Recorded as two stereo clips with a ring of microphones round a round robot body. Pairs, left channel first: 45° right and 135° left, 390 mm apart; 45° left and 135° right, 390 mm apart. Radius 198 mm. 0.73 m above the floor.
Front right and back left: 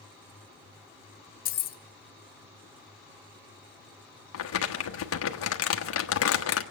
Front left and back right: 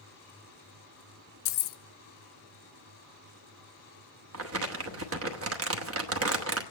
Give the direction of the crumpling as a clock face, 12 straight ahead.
3 o'clock.